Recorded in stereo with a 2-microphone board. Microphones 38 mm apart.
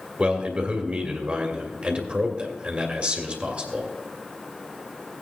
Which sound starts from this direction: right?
A man speaking, at 0.2 s.